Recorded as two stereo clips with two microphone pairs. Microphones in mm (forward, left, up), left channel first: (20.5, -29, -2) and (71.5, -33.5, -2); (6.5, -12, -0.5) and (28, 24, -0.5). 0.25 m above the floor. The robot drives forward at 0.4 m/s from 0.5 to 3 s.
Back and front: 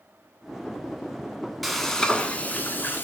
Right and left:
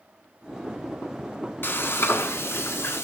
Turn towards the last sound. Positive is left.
turn(degrees=-130)